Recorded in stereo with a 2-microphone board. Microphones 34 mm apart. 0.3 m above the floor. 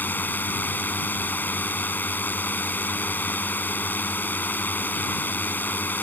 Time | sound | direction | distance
0.0 | a drone | 65° left (ahead or behind) | ?